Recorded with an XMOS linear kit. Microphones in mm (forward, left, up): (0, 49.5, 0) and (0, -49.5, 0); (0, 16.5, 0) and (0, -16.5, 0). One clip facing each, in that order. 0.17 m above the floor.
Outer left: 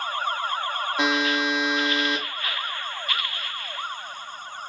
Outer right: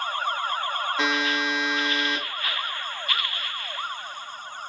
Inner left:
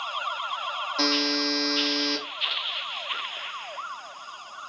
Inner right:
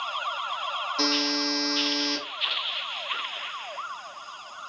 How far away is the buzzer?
About 1.0 m.